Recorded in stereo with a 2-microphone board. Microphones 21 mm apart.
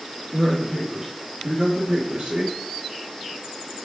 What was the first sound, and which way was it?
A man speaking, 15° right (ahead or behind).